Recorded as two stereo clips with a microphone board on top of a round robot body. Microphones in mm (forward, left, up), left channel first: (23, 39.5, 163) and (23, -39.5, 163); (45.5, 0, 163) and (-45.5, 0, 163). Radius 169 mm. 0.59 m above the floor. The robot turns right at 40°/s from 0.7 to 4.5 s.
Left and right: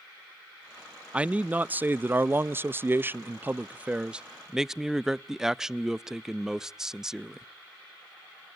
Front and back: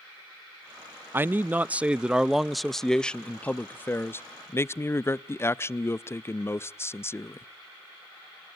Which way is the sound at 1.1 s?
145° right.